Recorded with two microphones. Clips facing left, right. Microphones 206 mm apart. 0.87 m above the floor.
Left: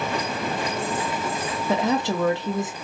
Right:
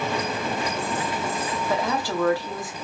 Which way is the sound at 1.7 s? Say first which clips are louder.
Left 5 dB; 20° left (ahead or behind).